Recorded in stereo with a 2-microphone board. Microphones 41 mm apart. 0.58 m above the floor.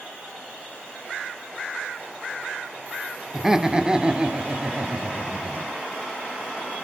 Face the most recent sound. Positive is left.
turn(degrees=-40)  # may be behind; listen again after turning